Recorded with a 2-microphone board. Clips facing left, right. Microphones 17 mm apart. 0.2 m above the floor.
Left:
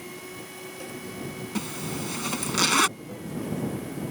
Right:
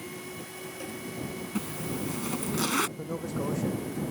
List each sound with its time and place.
1.6 s a zipper: 60° left (ahead or behind)
3.0 s a man speaking: 60° right (ahead or behind)